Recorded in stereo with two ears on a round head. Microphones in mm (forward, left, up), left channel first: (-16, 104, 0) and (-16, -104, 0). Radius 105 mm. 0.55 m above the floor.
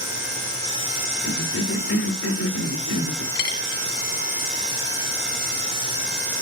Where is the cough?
60° left (ahead or behind), 2 m.